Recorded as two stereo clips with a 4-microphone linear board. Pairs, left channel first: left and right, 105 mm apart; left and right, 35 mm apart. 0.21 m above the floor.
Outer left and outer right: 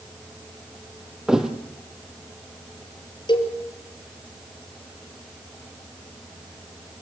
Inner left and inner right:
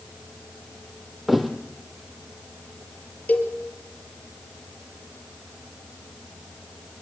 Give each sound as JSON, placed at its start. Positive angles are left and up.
{"t": 1.3, "sound": "a thud", "side_deg": -5, "distance_m": 2.5}
{"t": 3.3, "sound": "a cowbell", "side_deg": 45, "distance_m": 5.5}